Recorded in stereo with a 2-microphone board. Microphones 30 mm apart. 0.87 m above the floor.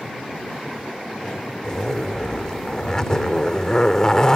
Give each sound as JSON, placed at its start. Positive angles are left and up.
{"t": 1.6, "sound": "a zipper", "side_deg": 25}